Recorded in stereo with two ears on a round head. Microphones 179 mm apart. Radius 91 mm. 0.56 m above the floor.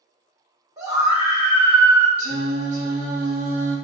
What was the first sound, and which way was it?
A scream, 15° right (ahead or behind).